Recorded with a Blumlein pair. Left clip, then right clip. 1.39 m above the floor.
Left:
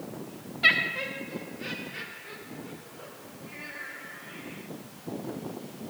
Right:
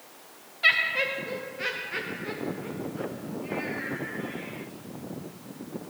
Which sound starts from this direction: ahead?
Laughter, at 0.6 s.